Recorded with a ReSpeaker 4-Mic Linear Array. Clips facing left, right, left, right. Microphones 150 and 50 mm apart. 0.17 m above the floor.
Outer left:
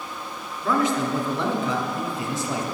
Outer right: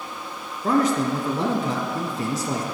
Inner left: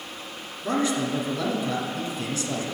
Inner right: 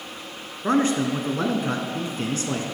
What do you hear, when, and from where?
0.6 s a man speaking: 45° right (ahead or behind), 1.4 m